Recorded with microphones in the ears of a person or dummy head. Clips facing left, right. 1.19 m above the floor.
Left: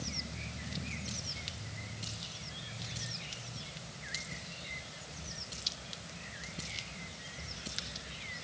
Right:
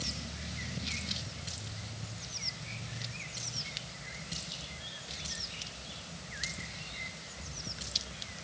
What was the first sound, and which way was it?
Only background noise.